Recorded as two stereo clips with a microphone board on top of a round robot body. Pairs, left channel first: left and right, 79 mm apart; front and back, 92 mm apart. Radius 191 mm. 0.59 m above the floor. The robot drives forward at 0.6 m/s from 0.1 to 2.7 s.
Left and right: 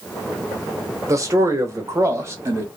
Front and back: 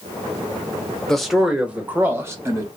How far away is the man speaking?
About 1.4 m.